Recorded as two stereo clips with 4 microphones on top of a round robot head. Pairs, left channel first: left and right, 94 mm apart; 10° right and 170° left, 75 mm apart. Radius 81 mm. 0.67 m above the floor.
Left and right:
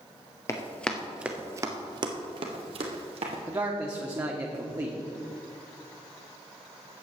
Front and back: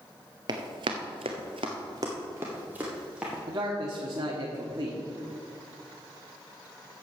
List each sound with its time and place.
0.5 s running footsteps: 150° left, 0.9 m; by 3.4 s 105° right, 1.9 m
3.5 s a man speaking: 145° right, 1.3 m